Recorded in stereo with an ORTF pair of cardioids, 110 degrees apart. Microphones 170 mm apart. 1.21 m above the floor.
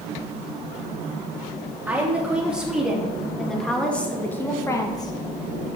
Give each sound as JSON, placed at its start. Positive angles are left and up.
{"t": 1.9, "sound": "a woman speaking", "azimuth_deg": -10, "distance_m": 2.5}